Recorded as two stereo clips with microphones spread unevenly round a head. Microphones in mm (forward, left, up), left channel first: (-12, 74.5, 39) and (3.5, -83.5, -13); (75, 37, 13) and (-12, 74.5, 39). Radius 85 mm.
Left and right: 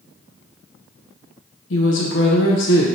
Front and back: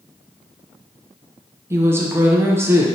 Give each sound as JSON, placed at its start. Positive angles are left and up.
{"t": 1.7, "sound": "a woman speaking", "azimuth_deg": 95, "distance_m": 0.6}